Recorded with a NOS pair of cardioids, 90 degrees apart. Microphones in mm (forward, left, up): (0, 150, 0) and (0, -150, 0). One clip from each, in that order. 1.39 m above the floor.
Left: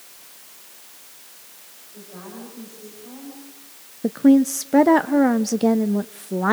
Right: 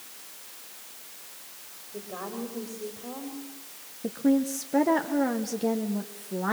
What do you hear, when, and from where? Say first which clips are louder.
1.9 s a woman speaking: right 4 dB; 70° right, 5 m
4.0 s a woman speaking: left 9 dB; 40° left, 0.6 m